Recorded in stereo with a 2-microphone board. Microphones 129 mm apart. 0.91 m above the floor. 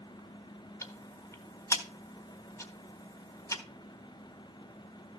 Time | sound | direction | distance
0.8 | ticking | 20° left (ahead or behind) | 1.2 m